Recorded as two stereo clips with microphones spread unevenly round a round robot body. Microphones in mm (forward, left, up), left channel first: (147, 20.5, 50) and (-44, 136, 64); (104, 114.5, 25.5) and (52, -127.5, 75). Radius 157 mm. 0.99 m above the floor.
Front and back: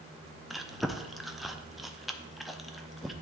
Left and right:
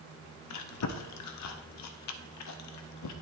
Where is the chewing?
60° left, 0.7 m.